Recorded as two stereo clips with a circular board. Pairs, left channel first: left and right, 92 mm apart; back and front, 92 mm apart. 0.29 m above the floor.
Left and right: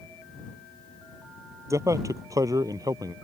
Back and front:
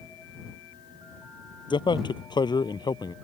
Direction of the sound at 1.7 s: 145° right.